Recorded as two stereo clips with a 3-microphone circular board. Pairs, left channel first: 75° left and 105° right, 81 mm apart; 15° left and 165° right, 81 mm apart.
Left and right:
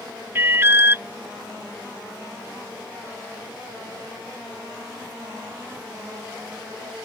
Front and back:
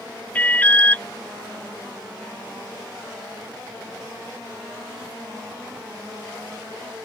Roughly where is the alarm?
Ahead right.